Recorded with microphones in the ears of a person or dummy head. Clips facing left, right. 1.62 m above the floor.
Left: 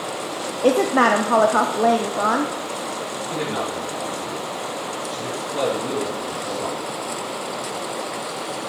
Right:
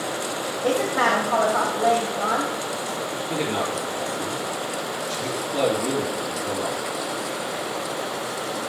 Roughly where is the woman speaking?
Left.